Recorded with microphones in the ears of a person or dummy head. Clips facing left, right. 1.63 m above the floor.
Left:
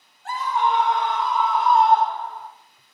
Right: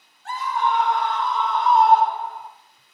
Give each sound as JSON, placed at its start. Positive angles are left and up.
{"t": 0.2, "sound": "a scream", "side_deg": 35, "distance_m": 2.0}